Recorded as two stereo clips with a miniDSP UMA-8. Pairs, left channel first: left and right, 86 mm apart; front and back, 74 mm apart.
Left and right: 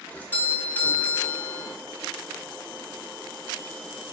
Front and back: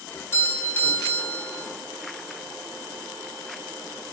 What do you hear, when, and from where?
0.1 s a doorbell: 35° left, 1.4 m